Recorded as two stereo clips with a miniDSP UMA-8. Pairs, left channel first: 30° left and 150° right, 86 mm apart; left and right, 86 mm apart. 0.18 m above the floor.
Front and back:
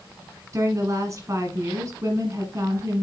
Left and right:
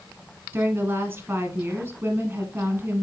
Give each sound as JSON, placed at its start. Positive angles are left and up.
{"t": 0.5, "sound": "a woman speaking", "azimuth_deg": -135, "distance_m": 1.3}